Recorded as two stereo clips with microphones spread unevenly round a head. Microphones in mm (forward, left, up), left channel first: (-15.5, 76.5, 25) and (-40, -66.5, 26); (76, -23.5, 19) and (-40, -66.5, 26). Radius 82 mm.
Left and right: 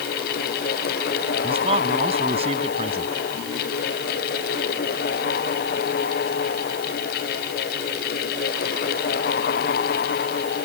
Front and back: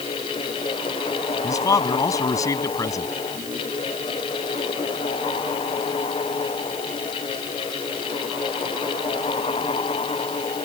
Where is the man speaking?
45° right.